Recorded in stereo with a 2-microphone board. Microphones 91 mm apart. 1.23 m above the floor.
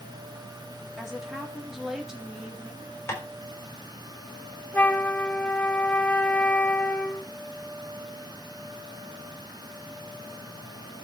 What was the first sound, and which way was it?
A woman speaking, 5° right (ahead or behind).